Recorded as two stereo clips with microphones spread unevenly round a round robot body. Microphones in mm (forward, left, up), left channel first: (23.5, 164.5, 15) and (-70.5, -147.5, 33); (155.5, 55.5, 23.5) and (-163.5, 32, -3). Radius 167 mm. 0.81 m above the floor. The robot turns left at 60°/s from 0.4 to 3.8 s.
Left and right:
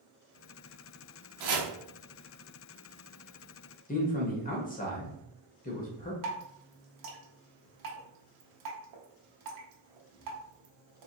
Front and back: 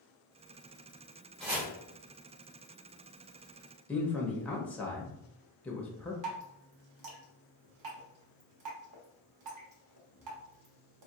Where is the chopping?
80° right, 0.9 m; by 1.7 s 100° right, 0.9 m.